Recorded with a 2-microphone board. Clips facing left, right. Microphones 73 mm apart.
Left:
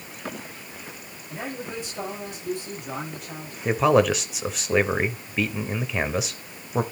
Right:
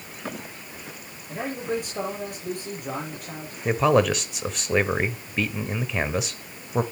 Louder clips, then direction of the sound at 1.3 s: Right 5 dB; 50° right (ahead or behind).